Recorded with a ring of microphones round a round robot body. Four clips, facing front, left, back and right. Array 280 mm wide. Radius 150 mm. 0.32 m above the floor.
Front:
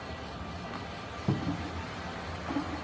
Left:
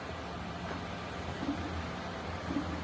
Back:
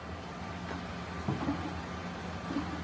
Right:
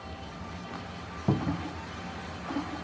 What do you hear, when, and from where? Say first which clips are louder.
1.3 s a cupboard door: right 8 dB, front 1 dB; 75° right